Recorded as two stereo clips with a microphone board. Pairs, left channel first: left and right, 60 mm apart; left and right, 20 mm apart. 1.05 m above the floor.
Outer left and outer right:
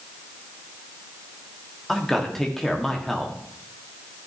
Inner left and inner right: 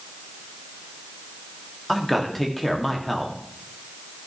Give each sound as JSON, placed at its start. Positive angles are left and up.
{"t": 1.9, "sound": "a man speaking", "side_deg": 5, "distance_m": 1.7}